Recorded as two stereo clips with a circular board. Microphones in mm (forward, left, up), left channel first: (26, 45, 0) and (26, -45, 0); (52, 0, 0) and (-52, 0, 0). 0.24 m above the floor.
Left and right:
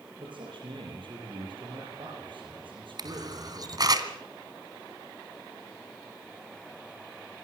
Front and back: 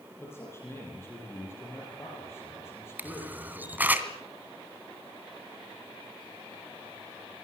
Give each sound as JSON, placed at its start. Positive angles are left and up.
{"t": 0.2, "sound": "a man speaking", "azimuth_deg": -65, "distance_m": 7.5}
{"t": 3.0, "sound": "a camera shutter", "azimuth_deg": -110, "distance_m": 2.0}